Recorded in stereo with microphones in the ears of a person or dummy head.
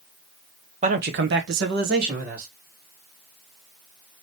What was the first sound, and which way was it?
A man speaking, 30° right (ahead or behind).